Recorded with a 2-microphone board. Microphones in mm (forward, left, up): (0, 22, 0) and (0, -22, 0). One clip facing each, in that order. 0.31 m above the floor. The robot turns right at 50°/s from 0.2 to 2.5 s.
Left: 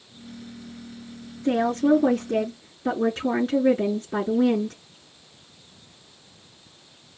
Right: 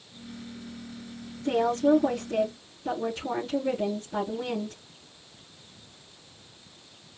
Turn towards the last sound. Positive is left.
turn(degrees=90)